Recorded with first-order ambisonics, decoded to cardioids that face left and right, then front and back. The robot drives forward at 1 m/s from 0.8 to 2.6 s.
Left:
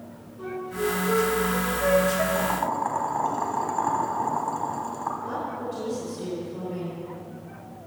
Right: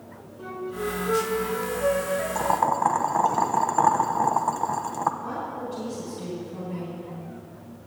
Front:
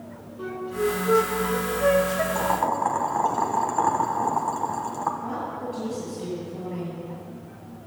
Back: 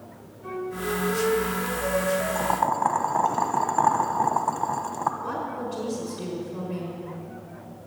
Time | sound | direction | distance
0.4 | a flute | 10° left | 3 m
2.4 | boiling | 80° right | 0.9 m
5.2 | a woman speaking | 175° right | 4.5 m